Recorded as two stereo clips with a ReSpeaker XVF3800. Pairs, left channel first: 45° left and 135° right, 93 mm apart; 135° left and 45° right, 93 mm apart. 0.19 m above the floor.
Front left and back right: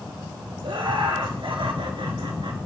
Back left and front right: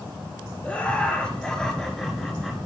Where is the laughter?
150° right, 3 m; by 2.7 s 130° right, 2.5 m.